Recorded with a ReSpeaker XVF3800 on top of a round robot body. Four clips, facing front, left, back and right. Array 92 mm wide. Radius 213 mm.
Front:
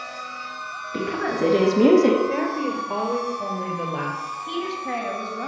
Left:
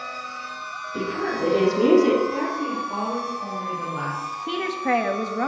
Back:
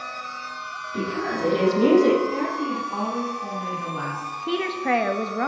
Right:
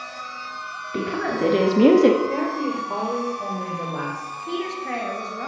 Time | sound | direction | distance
0.9 | a woman speaking | 65° right | 4 m
2.3 | a woman speaking | 30° right | 4.5 m
4.5 | a woman speaking | 150° left | 1.7 m